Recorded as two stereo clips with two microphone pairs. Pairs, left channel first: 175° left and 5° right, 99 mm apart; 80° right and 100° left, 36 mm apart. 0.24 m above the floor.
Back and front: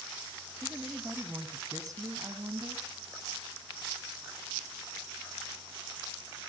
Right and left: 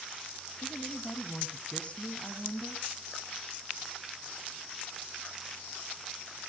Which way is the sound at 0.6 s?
70° right.